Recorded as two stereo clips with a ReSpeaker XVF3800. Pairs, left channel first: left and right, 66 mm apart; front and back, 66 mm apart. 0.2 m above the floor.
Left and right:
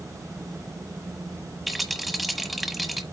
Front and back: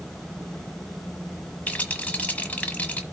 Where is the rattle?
Straight ahead, 1.3 m.